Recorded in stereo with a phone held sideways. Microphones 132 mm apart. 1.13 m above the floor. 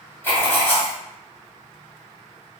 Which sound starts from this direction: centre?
Writing, at 0.2 s.